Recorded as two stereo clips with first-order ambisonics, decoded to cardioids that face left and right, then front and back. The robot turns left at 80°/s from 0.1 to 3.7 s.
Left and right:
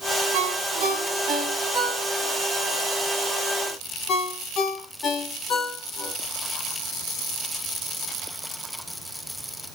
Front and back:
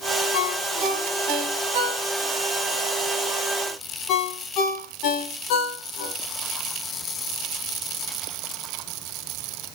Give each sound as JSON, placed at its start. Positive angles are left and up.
{"t": 0.3, "sound": "a ringtone", "azimuth_deg": -55, "distance_m": 3.0}